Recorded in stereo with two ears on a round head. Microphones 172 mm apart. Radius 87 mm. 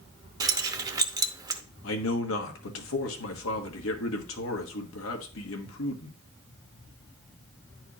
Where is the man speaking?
75° left (ahead or behind), 1.3 m.